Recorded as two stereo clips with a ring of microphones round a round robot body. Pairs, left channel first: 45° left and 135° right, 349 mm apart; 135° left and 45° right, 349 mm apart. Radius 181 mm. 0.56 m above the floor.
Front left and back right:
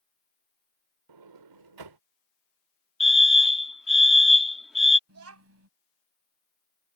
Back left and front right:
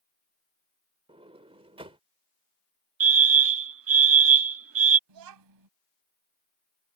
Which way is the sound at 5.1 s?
80° right.